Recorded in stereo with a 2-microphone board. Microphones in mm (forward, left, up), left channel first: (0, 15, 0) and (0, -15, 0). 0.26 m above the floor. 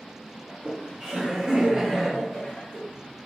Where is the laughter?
35° right (ahead or behind), 1.4 m; by 2.8 s 20° left (ahead or behind), 1.6 m.